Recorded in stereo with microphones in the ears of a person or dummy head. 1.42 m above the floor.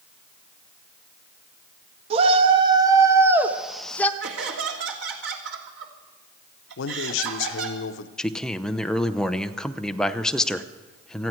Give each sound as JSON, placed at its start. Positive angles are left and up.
{"t": 2.1, "sound": "a shout", "side_deg": -35, "distance_m": 1.5}
{"t": 4.2, "sound": "laughter", "side_deg": -75, "distance_m": 2.5}
{"t": 6.8, "sound": "a man speaking", "side_deg": 85, "distance_m": 0.9}
{"t": 8.2, "sound": "a man speaking", "side_deg": 0, "distance_m": 0.7}